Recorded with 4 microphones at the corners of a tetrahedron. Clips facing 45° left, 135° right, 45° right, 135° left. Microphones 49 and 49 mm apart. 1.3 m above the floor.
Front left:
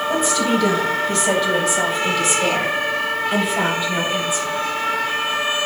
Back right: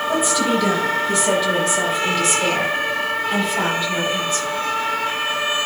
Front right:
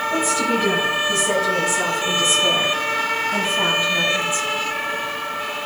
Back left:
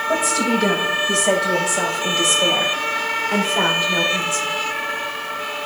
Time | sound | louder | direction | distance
0.1 | a woman speaking | back right 1 dB, back left 2 dB | 140° left | 7 m